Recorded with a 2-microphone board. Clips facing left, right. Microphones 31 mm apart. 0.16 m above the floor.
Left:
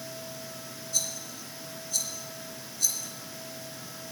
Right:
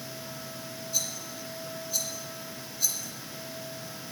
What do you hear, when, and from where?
0.9 s a rattle: 10° right (ahead or behind), 2.5 m